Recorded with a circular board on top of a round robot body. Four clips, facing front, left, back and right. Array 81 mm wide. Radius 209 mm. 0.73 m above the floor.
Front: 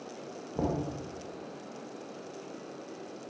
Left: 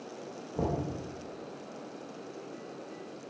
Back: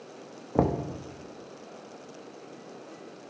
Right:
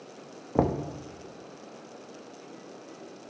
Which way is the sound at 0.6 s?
130° right.